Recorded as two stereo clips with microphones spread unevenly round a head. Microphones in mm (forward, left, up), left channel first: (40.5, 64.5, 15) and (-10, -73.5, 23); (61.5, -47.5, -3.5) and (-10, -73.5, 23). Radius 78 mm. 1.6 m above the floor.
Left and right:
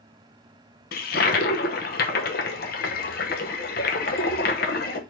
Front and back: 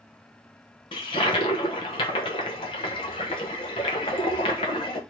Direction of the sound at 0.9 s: 60° left.